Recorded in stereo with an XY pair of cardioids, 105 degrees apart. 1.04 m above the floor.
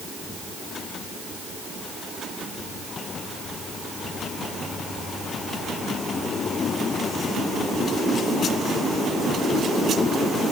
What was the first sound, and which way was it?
Only background noise.